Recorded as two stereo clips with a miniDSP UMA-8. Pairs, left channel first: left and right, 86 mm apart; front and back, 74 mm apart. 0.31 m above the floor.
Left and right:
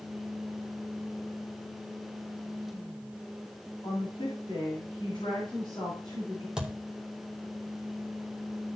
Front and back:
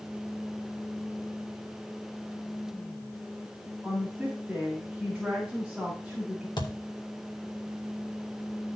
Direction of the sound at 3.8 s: 90° left.